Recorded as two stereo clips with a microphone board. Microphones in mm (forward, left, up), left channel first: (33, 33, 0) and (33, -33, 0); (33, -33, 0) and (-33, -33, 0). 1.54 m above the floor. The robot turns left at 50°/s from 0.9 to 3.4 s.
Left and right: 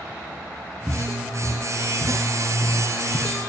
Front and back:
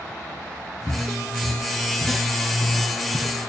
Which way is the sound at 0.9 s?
100° right.